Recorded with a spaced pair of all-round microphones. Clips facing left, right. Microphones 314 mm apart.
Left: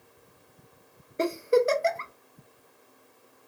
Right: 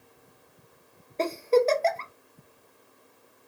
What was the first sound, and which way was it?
A giggle, 15° left (ahead or behind).